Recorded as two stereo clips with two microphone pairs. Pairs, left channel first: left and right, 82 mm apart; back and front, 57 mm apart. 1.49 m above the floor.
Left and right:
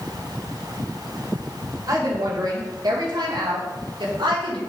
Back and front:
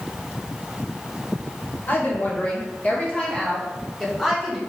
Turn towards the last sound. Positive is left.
turn(degrees=-95)